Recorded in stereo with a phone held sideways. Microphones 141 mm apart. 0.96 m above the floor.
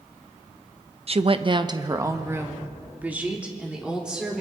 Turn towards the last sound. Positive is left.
turn(degrees=-5)  # may be behind; listen again after turning